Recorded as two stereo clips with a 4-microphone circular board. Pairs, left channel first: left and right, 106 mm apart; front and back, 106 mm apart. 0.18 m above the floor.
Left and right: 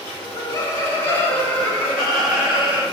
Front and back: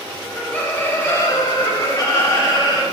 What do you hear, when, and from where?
0.2 s laughter: 70° left, 1.5 m; by 2.8 s 20° right, 1.6 m